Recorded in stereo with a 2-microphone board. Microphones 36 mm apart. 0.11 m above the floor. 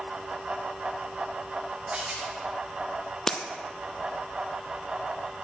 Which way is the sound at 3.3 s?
15° left (ahead or behind).